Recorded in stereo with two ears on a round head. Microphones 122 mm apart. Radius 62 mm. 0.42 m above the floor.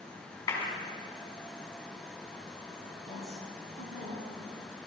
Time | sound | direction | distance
0.5 | a clap | 25° left (ahead or behind) | 3 m
3.1 | a woman speaking | 60° right (ahead or behind) | 4.5 m